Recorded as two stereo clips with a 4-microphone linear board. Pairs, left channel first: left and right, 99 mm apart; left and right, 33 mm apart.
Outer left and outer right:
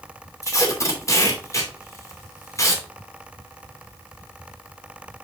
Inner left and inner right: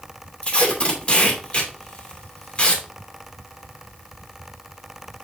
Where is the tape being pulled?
30° left (ahead or behind), 2.5 m.